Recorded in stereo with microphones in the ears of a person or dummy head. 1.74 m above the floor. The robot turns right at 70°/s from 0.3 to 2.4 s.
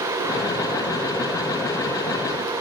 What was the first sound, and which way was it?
Only background noise.